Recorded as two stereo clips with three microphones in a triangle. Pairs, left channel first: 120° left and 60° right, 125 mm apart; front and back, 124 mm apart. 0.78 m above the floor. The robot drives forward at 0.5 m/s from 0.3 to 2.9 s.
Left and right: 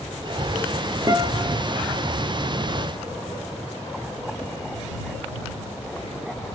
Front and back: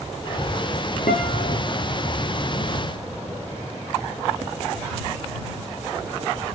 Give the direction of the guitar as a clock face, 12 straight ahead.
12 o'clock.